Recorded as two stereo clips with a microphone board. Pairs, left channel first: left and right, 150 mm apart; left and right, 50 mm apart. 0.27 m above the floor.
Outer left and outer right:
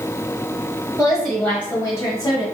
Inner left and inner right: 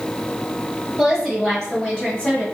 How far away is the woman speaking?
About 1.2 m.